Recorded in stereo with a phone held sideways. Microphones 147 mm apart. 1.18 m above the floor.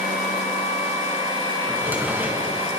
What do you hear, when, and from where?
1.7 s a drawer: 10° right (ahead or behind), 5.5 m